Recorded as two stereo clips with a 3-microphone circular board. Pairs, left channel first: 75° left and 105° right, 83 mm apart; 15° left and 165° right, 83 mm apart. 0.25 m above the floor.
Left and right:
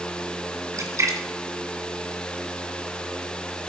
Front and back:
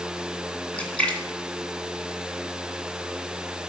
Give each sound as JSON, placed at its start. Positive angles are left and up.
{"t": 0.7, "sound": "a splash", "azimuth_deg": -60, "distance_m": 2.0}